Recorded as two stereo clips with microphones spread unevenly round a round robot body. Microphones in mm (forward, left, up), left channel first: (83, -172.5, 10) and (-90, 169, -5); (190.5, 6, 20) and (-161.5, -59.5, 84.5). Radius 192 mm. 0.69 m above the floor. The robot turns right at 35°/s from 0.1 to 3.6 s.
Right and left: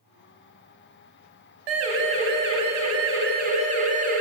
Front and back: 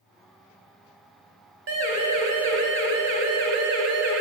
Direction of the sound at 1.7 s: 135° left.